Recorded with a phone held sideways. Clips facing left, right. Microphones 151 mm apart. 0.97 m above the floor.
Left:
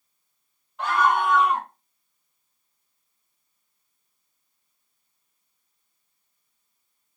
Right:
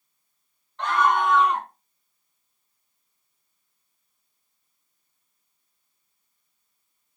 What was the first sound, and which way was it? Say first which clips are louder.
A scream: even; 5° left (ahead or behind).